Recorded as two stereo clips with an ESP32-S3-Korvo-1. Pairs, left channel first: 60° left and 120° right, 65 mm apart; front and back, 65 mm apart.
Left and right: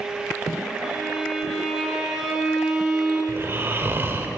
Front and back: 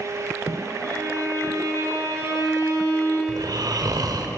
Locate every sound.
0.8 s a violin: 155° left, 7.5 m
3.3 s snoring: 175° right, 2.5 m